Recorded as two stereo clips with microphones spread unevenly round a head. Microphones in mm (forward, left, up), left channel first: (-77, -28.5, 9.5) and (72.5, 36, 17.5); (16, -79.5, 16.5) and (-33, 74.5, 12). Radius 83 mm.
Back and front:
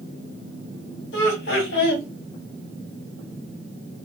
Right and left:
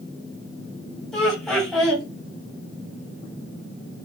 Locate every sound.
1.1 s laughter: 160° right, 1.4 m